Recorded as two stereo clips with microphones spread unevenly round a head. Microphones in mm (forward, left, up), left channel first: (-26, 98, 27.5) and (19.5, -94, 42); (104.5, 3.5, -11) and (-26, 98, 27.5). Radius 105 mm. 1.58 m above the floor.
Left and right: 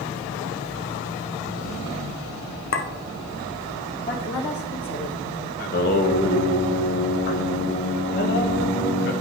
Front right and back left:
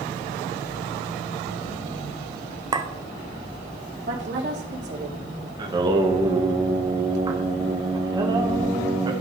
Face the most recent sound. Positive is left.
turn(degrees=120)